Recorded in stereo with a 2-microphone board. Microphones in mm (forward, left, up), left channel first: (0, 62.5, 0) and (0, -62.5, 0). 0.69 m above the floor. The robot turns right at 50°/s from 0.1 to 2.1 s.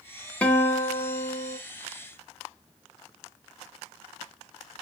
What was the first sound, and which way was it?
A guitar, 15° left.